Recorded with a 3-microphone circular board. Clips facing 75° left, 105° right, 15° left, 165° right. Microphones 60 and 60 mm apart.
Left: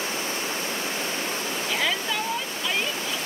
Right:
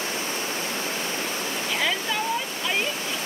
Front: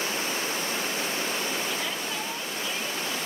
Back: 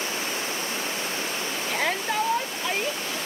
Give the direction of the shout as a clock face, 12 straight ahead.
6 o'clock.